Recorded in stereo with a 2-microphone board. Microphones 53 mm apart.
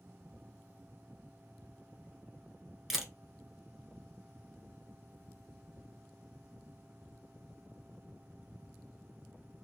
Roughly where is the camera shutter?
Centre.